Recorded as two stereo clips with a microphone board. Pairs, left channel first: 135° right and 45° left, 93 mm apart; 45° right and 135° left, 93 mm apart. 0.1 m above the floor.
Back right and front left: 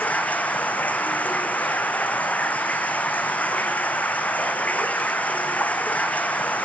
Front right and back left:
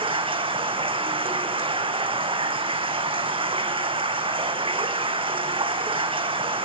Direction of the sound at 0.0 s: 150° left.